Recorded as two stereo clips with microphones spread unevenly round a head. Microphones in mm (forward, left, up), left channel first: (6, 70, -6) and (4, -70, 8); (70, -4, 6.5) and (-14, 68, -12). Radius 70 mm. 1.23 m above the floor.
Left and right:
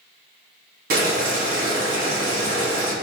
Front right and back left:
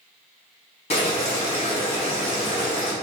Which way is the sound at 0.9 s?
75° right.